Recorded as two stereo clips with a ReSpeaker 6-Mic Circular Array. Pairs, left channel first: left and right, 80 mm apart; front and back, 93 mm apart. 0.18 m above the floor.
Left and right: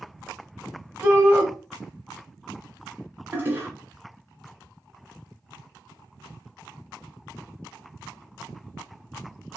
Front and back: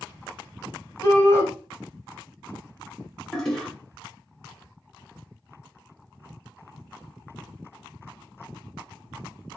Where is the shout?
45° right, 1.9 m.